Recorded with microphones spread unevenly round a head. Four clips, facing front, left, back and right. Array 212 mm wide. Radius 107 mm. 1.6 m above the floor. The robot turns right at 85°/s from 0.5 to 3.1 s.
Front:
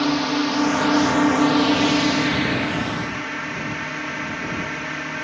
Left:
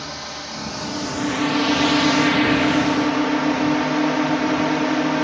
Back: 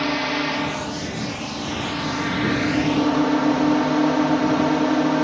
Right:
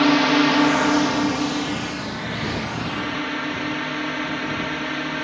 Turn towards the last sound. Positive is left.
turn(degrees=145)